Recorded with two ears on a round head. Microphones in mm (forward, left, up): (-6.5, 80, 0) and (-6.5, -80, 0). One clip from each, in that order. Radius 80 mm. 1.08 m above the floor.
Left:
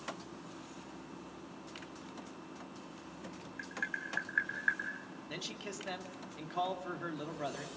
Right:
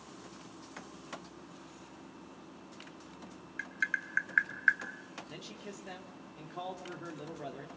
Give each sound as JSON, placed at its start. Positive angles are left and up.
{"t": 3.6, "sound": "tapping", "side_deg": -55, "distance_m": 2.5}
{"t": 5.3, "sound": "a man speaking", "side_deg": 35, "distance_m": 2.5}